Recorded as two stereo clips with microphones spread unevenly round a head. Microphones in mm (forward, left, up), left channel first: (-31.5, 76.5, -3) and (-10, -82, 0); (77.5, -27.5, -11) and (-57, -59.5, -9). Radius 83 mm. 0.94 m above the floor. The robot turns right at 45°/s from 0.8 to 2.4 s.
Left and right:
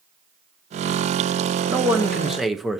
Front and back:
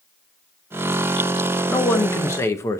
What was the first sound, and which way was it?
A man speaking, 25° right.